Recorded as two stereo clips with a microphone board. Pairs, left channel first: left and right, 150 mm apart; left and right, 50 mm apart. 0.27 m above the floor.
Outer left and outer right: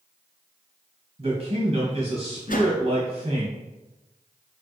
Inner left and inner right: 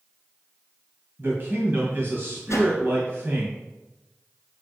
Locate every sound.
1.2 s a man speaking: 45° right (ahead or behind), 1.9 m
2.5 s a whoosh: 70° left (ahead or behind), 1.4 m